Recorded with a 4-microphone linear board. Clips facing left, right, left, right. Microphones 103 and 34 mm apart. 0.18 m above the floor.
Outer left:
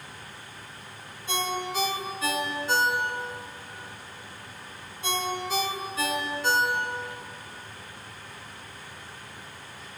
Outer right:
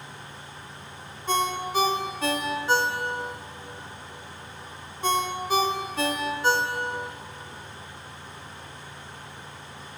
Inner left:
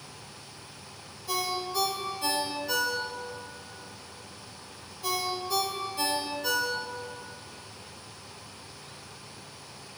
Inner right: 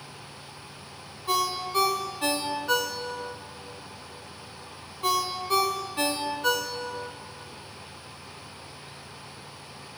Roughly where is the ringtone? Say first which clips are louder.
Outer right 4 dB, inner right 4 dB; right.